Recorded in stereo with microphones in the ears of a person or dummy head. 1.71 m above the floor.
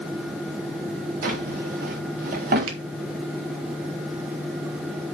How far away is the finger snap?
About 2.5 m.